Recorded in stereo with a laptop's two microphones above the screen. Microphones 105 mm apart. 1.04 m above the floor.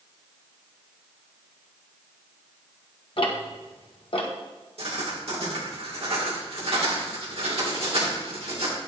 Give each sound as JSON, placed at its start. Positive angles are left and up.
{"t": 3.2, "sound": "ticking", "side_deg": 55, "distance_m": 1.1}
{"t": 4.8, "sound": "writing", "side_deg": -70, "distance_m": 2.0}